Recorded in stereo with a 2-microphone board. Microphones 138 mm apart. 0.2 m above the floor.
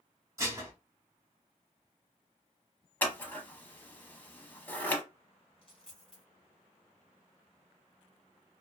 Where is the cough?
I don't hear a cough.